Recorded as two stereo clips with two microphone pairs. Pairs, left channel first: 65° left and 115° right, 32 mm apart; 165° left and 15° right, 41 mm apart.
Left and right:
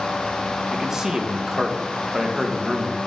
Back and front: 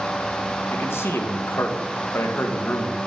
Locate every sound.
0.7 s a man speaking: 170° left, 1.6 m